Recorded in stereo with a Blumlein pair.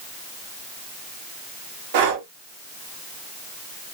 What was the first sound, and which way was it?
Breathing, 55° right.